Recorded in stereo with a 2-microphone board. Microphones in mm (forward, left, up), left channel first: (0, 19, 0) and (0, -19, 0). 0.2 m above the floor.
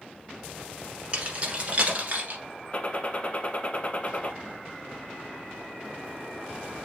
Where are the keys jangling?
35° right (ahead or behind), 1.2 m; by 2.4 s 50° right (ahead or behind), 2.0 m.